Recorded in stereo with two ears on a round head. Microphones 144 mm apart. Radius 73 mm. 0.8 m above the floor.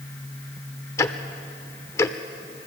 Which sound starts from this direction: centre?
Ticking, at 1.0 s.